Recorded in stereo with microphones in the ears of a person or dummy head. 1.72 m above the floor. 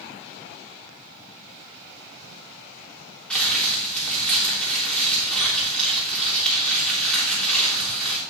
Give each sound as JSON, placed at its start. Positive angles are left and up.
{"t": 3.3, "sound": "crumpling", "side_deg": 5, "distance_m": 3.0}